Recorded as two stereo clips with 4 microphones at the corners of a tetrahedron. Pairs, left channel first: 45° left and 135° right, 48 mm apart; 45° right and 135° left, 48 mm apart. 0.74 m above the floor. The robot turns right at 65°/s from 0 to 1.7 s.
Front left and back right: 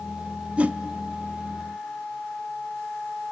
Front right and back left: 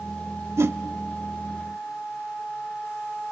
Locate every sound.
0.6 s a whoosh: 160° left, 0.6 m; by 0.8 s 175° left, 0.6 m